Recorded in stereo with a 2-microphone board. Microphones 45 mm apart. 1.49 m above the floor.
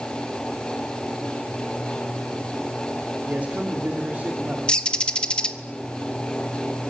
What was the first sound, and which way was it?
A man speaking, 35° right (ahead or behind).